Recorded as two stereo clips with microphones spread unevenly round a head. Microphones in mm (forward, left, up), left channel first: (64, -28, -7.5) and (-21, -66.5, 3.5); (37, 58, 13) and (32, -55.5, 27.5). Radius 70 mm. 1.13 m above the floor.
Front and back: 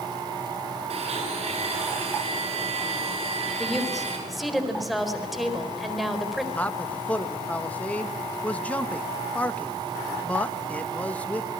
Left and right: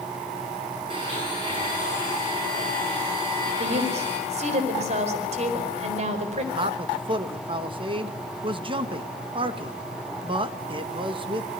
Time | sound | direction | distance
0.9 | a blender | 150° right | 9.5 m
3.6 | a woman speaking | 65° right | 4.5 m
6.5 | a man speaking | 50° right | 1.9 m